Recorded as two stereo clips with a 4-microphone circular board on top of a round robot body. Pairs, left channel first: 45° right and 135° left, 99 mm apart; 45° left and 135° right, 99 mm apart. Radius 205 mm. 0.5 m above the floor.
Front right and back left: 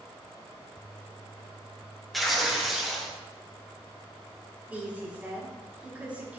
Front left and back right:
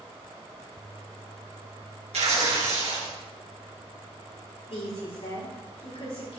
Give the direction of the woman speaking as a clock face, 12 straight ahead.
10 o'clock.